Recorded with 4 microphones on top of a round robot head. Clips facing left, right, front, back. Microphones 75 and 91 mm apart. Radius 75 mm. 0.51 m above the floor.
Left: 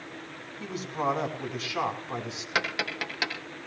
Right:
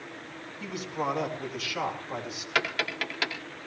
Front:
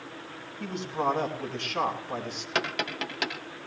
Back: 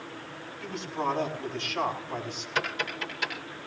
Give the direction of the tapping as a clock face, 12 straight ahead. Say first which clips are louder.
Right 1 dB, front 1 dB; 11 o'clock.